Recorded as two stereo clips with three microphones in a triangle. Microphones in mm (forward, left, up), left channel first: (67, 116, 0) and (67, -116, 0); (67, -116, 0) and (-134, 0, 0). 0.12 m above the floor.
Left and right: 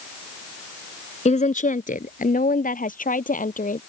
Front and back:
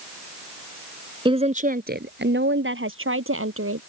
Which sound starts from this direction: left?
A woman speaking, at 1.2 s.